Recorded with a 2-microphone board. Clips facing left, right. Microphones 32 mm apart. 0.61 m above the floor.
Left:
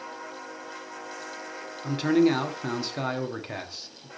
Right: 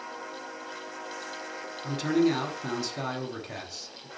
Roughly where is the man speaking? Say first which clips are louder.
Left 3 dB; centre.